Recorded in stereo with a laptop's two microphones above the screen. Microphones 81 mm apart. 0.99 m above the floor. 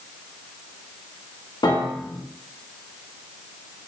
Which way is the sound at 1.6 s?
60° left (ahead or behind).